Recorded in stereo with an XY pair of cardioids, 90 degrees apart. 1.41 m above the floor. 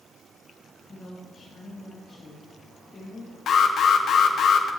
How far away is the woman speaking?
About 3.5 m.